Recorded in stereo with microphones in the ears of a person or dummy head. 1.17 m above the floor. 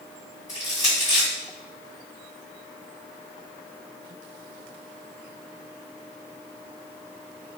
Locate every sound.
0.5 s crushing: 15° left (ahead or behind), 2.0 m